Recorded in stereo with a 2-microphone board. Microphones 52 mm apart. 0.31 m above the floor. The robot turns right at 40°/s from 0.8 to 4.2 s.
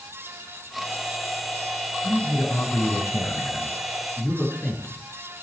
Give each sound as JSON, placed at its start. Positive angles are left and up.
{"t": 2.0, "sound": "a man speaking", "azimuth_deg": 65, "distance_m": 4.5}